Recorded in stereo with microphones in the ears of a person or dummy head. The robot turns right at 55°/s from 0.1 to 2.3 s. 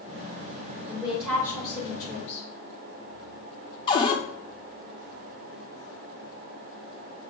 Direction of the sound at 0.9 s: 15° right.